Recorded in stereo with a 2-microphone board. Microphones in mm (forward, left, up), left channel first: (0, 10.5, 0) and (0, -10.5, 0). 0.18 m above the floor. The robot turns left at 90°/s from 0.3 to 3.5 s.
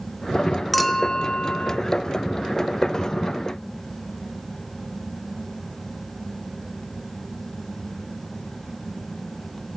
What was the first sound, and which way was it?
A clink, 175° right.